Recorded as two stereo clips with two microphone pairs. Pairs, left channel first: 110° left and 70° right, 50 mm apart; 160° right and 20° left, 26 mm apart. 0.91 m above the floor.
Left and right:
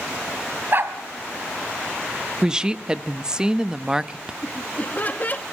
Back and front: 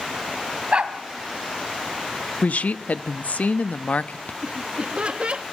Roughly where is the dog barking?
Ahead right.